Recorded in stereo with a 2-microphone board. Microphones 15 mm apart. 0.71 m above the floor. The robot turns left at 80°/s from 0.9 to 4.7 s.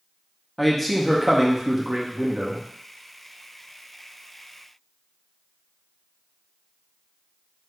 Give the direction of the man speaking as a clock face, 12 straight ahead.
12 o'clock.